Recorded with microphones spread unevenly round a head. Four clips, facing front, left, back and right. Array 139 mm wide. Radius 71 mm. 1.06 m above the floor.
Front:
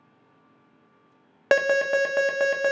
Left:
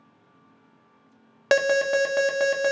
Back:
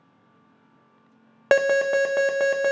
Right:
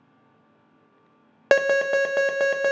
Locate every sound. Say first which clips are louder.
1.5 s an alarm: right 1 dB, back 2 dB; 140° right, 0.5 m